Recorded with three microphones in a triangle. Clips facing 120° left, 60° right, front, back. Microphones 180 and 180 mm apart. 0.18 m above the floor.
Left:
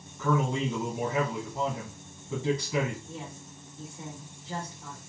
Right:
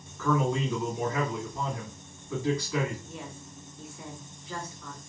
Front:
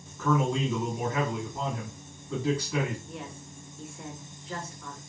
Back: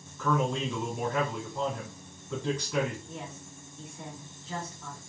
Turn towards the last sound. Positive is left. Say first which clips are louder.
# even, front 1 dB
turn(degrees=155)